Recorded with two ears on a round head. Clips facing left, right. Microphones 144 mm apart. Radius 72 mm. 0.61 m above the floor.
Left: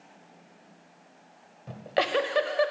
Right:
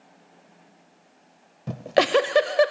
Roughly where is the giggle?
Right.